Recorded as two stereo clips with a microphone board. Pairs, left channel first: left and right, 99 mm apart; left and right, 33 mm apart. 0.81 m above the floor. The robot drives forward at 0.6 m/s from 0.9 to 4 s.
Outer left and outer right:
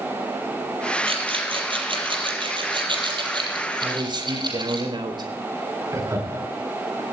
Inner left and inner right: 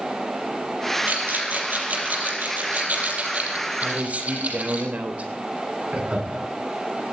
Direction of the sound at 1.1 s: 65° right (ahead or behind).